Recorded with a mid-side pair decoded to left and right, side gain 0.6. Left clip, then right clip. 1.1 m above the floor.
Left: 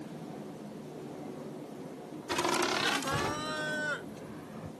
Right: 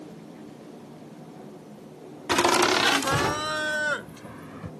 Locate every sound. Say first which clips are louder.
2.3 s laughter: right 9 dB; 50° right; by 4.7 s 40° right